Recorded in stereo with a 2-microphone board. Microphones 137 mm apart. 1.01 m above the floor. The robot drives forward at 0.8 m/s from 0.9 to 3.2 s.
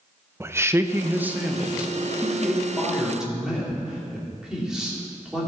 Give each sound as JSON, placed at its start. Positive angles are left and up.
{"t": 0.4, "sound": "a man speaking", "side_deg": -20, "distance_m": 0.6}